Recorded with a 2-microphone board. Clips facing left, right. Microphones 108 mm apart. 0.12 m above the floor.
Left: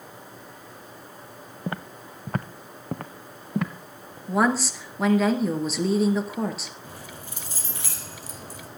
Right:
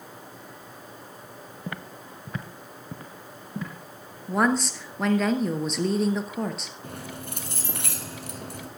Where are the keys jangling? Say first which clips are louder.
Right 4 dB; 65° right (ahead or behind), 2.5 m.